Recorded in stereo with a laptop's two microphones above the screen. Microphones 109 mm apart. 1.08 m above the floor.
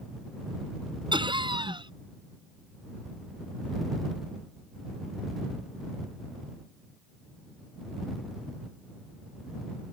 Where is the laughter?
45° right (ahead or behind).